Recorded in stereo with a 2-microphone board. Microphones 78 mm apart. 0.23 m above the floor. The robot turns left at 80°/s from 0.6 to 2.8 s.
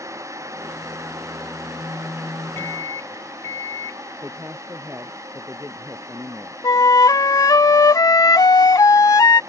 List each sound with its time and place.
2.6 s a microwave: 25° left (ahead or behind); by 4.0 s 35° left (ahead or behind)
4.2 s a woman speaking: 30° right (ahead or behind)
6.6 s a flute: 50° left (ahead or behind)